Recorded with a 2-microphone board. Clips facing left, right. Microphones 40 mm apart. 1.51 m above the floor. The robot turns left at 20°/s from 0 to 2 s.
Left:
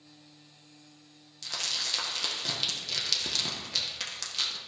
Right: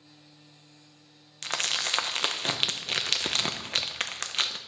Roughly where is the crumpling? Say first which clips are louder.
Right 5 dB; right.